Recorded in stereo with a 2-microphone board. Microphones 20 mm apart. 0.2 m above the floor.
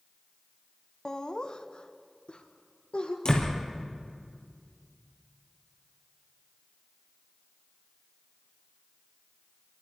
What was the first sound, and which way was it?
Laughter, 30° left (ahead or behind).